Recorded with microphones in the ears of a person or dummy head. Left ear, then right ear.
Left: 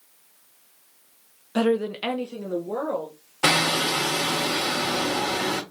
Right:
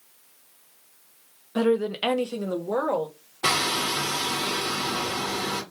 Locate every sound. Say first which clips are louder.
1.6 s a woman speaking: even; 25° left (ahead or behind), 0.6 m; by 3.1 s 40° right (ahead or behind), 1.5 m
3.4 s hammering: left 3 dB; 45° left (ahead or behind), 1.4 m